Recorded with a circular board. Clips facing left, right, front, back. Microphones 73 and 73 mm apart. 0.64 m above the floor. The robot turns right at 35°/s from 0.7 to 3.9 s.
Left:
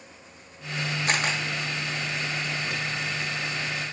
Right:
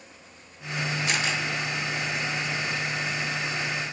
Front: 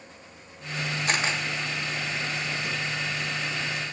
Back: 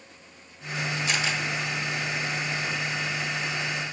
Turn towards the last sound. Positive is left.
turn(degrees=140)